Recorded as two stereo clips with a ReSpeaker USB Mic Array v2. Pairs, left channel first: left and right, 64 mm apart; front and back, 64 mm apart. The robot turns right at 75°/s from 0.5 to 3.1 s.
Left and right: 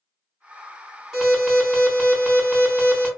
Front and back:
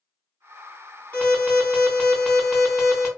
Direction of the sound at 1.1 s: 20° right.